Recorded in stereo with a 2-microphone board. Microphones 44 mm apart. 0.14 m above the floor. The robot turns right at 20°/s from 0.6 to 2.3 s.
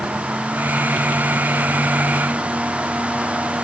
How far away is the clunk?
No clunk in this recording.